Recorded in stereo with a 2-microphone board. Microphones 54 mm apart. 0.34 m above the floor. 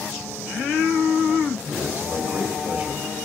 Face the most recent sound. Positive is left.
turn(degrees=-20)  # may be behind; listen again after turning